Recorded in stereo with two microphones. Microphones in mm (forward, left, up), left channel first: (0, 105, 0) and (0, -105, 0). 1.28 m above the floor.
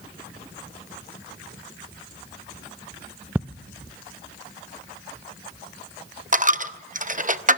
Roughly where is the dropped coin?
Right.